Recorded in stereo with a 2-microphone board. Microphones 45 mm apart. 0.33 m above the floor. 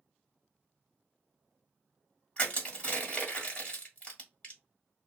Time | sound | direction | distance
2.4 | crushing | 30° left (ahead or behind) | 1.3 m